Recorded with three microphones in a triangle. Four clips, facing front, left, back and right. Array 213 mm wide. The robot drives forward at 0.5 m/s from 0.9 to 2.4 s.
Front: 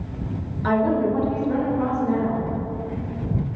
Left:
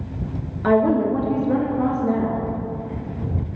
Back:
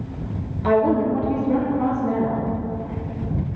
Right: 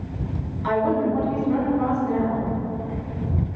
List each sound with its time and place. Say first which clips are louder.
0.6 s a woman speaking: left 4 dB, back 2 dB; 105° left, 2.5 m; by 2.5 s 120° left, 3 m